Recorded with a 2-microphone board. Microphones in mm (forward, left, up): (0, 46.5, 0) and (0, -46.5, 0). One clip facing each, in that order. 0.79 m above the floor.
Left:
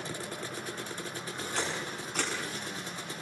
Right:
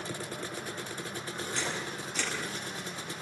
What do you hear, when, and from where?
1.6 s a camera shutter: 50° left (ahead or behind), 8.5 m